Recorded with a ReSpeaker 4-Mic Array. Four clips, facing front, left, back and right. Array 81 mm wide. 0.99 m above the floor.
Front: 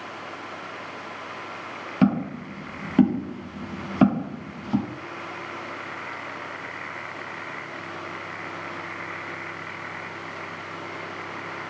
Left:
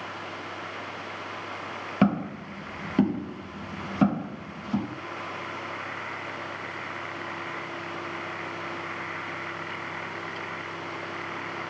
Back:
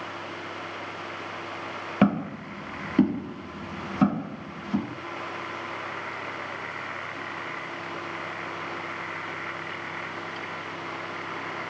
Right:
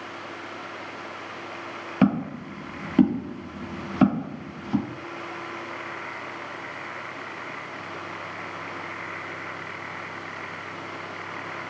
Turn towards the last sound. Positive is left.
turn(degrees=-30)